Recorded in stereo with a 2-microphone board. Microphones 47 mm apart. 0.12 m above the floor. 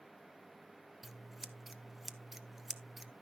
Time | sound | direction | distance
1.0 | scissors | 5° right (ahead or behind) | 0.5 m